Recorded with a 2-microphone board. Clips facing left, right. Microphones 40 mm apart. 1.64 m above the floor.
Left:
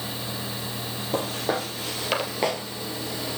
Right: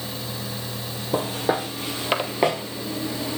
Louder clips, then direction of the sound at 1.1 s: Right 3 dB; 5° right (ahead or behind).